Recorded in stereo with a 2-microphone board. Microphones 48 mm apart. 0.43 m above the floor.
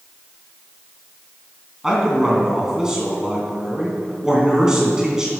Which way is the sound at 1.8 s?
15° right (ahead or behind).